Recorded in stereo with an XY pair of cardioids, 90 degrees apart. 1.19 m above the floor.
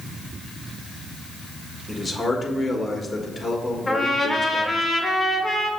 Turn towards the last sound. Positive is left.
turn(degrees=20)